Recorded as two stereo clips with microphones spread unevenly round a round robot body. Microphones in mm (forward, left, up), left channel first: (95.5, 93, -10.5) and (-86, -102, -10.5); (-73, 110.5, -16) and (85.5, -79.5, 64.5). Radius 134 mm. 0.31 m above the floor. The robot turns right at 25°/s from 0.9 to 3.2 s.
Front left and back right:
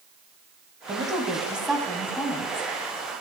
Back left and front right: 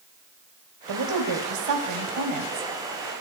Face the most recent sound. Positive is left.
turn(degrees=-5)